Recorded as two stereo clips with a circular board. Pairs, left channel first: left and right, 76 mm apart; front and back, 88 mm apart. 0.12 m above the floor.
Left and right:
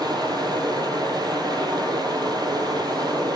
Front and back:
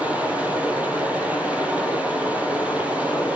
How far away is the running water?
About 1.9 m.